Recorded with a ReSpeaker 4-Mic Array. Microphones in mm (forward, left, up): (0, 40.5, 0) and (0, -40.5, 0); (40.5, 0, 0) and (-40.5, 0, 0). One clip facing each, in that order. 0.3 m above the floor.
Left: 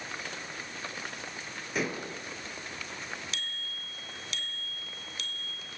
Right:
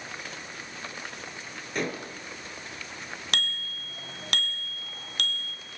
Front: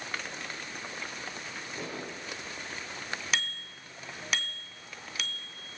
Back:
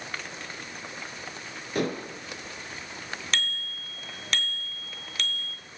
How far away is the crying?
No crying in this recording.